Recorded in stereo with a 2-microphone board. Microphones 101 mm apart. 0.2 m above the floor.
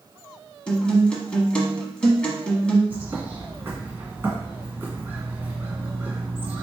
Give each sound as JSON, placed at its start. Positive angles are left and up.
{"t": 0.7, "sound": "a guitar", "side_deg": 10, "distance_m": 1.0}
{"t": 2.9, "sound": "a bird", "side_deg": -25, "distance_m": 2.0}